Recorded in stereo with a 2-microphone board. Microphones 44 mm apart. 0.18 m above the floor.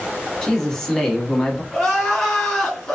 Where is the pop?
I don't hear a pop.